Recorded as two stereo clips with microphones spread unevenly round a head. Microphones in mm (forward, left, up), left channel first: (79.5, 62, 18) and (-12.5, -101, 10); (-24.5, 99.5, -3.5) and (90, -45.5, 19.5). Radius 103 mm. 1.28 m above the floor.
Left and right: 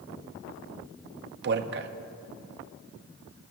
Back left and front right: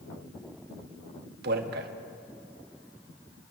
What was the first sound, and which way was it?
A man speaking, 95° right.